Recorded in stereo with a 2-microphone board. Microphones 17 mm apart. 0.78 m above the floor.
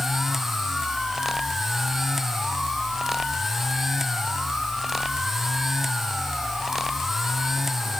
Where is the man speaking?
I don't hear a man speaking.